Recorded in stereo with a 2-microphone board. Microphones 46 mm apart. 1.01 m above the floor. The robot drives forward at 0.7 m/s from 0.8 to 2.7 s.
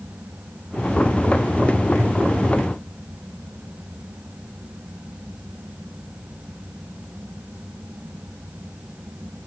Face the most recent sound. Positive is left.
No sound to turn to.